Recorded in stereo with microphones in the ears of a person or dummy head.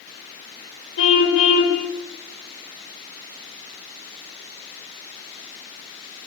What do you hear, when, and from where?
1.0 s a car horn: 75° left (ahead or behind), 4 m